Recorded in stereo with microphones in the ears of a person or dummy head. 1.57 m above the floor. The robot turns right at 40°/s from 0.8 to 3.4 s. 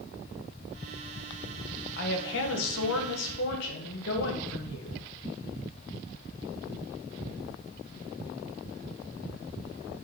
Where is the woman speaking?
60° left, 1.5 m; by 5.0 s 115° left, 1.5 m.